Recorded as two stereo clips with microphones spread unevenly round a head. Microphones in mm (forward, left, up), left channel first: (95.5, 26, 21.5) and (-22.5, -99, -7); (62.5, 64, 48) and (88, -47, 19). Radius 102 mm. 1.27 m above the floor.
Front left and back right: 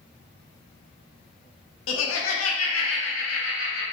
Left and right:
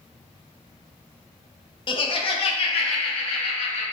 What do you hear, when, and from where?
1.9 s laughter: 55° left, 0.7 m; by 3.8 s 75° left, 1.8 m